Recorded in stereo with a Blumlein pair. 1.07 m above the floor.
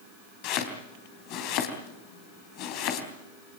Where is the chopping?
40° left, 3.5 m.